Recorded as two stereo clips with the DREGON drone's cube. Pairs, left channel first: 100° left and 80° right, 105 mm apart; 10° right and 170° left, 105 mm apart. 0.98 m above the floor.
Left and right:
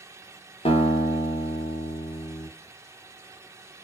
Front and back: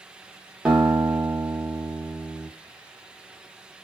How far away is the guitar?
About 0.8 m.